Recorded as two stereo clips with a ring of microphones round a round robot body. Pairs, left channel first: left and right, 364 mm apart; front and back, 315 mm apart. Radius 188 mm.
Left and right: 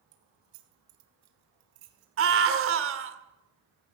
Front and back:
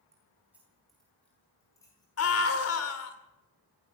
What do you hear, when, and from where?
0.1 s keys jangling: 100° right, 3 m; by 3.1 s 70° right, 4 m
2.2 s a scream: 40° right, 2.5 m